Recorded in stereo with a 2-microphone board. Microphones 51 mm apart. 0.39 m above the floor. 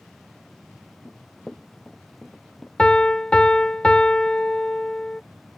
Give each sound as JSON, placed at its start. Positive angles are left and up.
{"t": 1.1, "sound": "running footsteps", "side_deg": 20}
{"t": 2.8, "sound": "a piano", "side_deg": 20}